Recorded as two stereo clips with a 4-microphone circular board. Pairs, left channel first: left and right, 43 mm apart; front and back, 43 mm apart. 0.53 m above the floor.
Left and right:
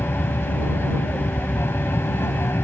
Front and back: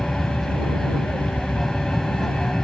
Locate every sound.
0.0 s an aircraft: 80° left